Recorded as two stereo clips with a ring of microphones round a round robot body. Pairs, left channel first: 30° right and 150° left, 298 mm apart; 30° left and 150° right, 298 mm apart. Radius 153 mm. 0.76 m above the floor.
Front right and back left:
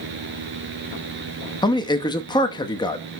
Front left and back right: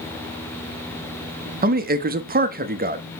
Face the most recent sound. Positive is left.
turn(degrees=-100)